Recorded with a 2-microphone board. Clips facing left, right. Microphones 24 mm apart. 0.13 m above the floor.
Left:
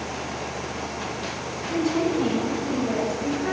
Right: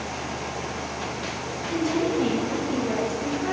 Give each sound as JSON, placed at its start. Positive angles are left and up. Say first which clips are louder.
{"t": 1.7, "sound": "a woman speaking", "louder": "left 1 dB", "side_deg": -50, "distance_m": 3.5}